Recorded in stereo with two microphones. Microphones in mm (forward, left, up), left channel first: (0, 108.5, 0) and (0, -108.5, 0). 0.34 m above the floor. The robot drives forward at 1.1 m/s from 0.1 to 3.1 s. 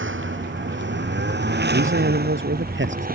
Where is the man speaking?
65° right (ahead or behind); by 3.1 s 60° right (ahead or behind).